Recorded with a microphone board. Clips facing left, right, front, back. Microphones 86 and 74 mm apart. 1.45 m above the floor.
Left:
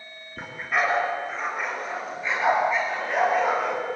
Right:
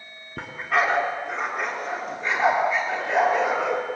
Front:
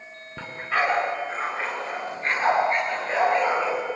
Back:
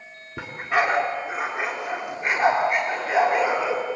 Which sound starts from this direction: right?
A dog barking, at 0.4 s.